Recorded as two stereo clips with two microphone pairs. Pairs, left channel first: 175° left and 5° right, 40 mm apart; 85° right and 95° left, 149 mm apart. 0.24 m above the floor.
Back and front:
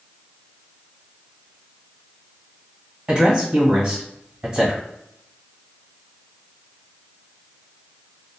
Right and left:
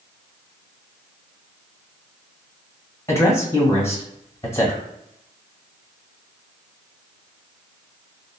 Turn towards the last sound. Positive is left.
turn(degrees=-50)